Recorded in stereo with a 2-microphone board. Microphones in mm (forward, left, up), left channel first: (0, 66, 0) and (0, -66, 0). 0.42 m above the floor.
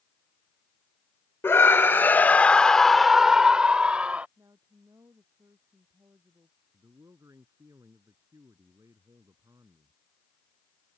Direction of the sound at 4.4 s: 25° right (ahead or behind).